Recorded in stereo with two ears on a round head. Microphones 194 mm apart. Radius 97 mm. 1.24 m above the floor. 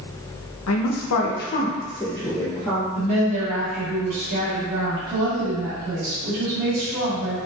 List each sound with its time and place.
0.7 s a woman speaking: 70° left (ahead or behind), 0.8 m; by 2.9 s centre (ahead or behind), 1.7 m
3.0 s a woman speaking: 40° right (ahead or behind), 1.7 m